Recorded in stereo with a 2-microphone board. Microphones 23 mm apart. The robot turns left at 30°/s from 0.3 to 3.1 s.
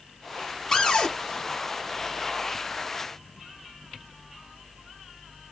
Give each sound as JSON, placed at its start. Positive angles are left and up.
{"t": 0.7, "sound": "a cupboard door", "side_deg": 25, "distance_m": 0.8}